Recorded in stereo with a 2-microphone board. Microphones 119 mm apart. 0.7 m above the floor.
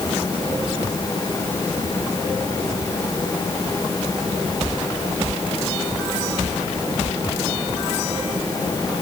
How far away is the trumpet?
I don't hear a trumpet.